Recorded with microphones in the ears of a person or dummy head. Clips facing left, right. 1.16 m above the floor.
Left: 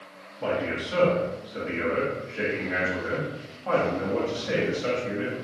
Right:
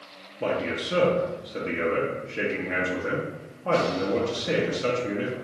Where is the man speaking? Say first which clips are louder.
Right 1 dB; 40° right (ahead or behind), 0.6 m.